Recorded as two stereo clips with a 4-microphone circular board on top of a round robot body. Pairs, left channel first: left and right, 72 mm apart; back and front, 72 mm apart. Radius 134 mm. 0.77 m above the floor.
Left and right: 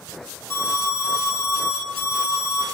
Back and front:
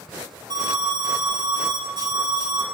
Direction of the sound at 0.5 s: 25° left.